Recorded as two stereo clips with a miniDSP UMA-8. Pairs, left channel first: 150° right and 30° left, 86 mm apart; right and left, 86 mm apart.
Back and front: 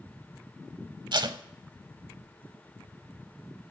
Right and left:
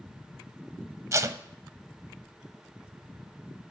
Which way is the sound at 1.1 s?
40° left.